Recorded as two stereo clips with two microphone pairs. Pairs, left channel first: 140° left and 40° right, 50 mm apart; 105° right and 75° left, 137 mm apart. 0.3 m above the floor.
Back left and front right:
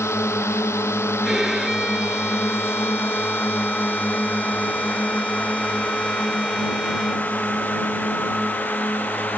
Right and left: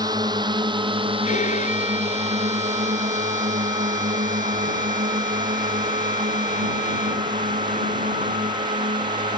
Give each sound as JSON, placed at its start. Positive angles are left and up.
{"t": 0.0, "sound": "a drone", "azimuth_deg": 135}
{"t": 1.2, "sound": "a violin", "azimuth_deg": -125}